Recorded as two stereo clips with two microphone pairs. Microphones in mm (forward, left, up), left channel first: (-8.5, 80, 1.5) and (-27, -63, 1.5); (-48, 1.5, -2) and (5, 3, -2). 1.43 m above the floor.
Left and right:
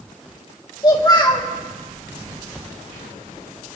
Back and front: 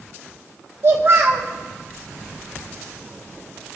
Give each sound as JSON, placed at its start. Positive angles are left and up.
{"t": 0.8, "sound": "a child speaking", "azimuth_deg": 30, "distance_m": 1.6}